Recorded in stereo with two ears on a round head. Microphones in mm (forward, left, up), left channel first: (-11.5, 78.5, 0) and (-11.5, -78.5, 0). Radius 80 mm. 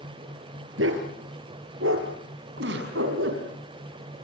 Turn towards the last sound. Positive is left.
turn(degrees=-75)  # may be behind; listen again after turning